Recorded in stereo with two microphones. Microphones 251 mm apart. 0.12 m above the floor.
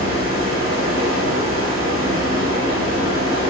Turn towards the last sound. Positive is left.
turn(degrees=60)  # may be behind; listen again after turning